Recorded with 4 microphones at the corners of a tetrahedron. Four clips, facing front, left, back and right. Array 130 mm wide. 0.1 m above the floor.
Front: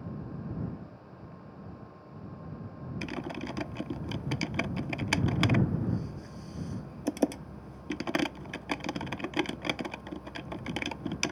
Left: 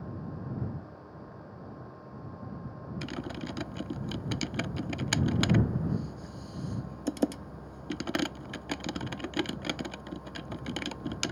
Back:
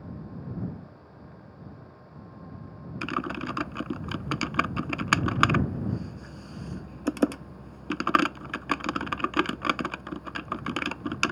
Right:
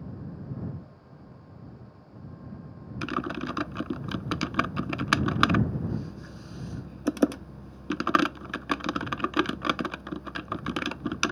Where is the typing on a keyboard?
120° right.